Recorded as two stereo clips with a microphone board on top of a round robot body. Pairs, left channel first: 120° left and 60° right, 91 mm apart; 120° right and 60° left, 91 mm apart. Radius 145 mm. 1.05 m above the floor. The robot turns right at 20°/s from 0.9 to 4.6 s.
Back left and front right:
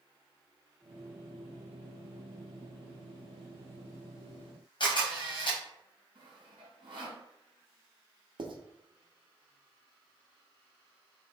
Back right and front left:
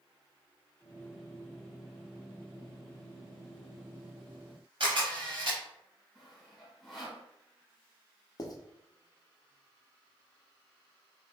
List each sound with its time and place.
4.8 s a camera shutter: 90° left, 1.0 m
6.2 s sawing: 30° right, 2.5 m
8.4 s writing: 75° right, 1.1 m